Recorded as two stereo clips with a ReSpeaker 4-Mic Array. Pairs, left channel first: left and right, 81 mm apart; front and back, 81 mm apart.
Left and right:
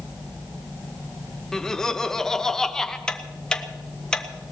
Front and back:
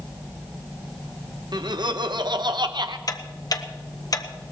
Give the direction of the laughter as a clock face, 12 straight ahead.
6 o'clock.